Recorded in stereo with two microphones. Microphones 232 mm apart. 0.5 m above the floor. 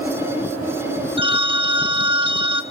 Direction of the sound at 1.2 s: 25° right (ahead or behind).